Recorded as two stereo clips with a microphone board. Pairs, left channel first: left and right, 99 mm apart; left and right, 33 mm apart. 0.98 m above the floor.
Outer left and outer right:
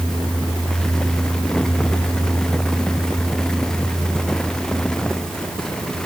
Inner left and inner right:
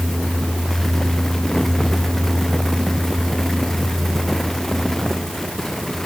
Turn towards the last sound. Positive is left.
No sound to turn to.